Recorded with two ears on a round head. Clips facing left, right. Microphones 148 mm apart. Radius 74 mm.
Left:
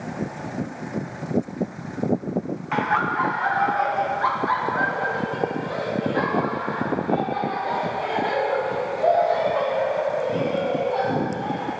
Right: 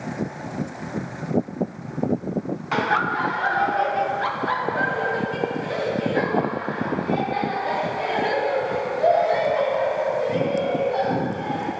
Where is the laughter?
45° right (ahead or behind), 1.4 m; by 11.7 s 20° right (ahead or behind), 6.5 m.